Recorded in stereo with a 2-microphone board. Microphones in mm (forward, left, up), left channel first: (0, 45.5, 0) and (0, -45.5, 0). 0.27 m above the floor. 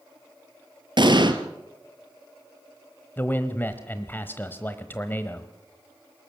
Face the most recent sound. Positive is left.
turn(degrees=20)  # may be behind; listen again after turning